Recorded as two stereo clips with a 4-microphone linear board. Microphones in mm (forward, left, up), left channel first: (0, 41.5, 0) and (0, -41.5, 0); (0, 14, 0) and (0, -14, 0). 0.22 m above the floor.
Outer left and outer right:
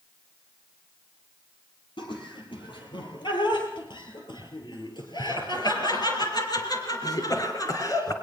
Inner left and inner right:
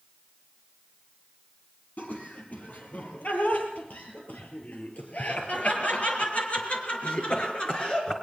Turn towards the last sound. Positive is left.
turn(degrees=40)  # may be behind; listen again after turning